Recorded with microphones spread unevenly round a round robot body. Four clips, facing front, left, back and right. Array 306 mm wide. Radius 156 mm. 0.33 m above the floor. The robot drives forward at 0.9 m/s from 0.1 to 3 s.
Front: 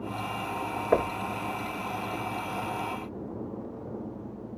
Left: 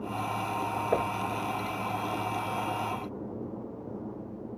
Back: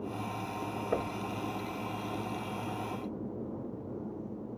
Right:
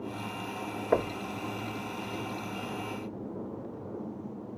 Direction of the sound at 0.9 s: 20° right.